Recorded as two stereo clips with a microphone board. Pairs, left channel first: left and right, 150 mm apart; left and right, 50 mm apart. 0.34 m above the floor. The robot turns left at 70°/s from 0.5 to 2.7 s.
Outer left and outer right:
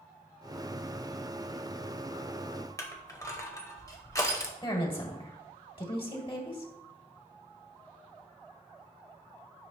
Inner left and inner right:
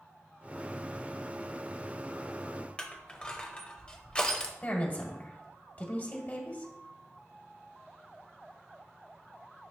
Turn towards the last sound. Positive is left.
turn(degrees=35)  # may be behind; listen again after turning